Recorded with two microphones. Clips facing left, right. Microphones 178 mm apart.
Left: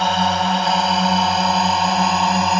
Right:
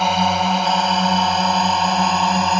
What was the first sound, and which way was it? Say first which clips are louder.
A drone: right 1 dB; 5° right (ahead or behind).